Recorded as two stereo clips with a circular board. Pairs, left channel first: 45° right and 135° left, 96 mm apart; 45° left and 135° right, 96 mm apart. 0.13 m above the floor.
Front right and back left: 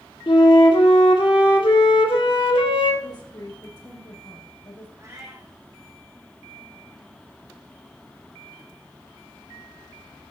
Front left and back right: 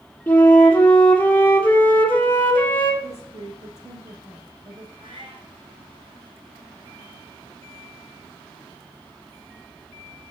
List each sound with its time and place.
0.3 s a flute: 25° right, 2.0 m
3.0 s a woman speaking: 85° right, 4.5 m
5.0 s a cat meowing: 165° right, 3 m